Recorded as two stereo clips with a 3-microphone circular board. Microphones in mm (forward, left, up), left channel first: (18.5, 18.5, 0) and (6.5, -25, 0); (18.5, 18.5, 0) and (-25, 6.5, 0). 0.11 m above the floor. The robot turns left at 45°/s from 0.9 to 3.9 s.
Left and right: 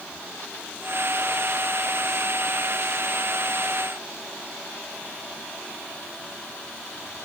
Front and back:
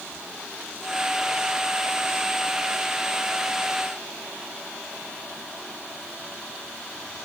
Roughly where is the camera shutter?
No camera shutter in this recording.